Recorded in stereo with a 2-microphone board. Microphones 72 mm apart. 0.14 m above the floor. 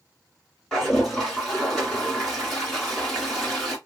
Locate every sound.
0.7 s a toilet flushing: 10° left (ahead or behind), 2 m